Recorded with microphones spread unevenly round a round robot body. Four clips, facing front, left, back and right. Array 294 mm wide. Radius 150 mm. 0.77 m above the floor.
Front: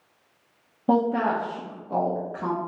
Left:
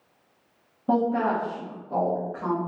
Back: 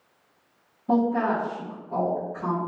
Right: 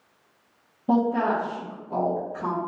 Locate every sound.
0.9 s a woman speaking: 5° left, 1.1 m